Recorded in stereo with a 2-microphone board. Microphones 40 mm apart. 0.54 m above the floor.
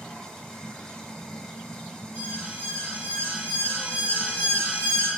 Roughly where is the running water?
Centre.